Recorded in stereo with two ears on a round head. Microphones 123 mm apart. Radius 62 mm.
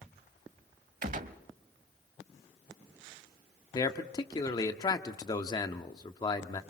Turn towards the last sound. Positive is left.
turn(degrees=30)  # may be behind; listen again after turning